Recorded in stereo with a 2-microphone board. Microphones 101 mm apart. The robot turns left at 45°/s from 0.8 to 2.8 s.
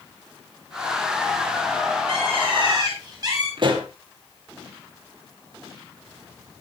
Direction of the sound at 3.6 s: 50° right (ahead or behind).